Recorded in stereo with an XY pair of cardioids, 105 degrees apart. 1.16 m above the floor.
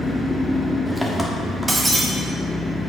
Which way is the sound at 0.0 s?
5° left.